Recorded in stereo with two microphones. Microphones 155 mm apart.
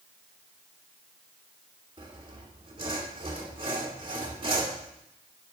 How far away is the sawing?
About 2.5 m.